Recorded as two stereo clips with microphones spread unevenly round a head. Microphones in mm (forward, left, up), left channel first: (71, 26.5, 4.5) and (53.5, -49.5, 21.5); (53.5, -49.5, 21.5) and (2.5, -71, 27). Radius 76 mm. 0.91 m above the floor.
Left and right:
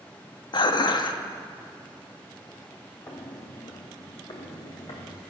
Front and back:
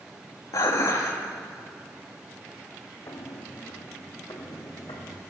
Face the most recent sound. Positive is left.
turn(degrees=65)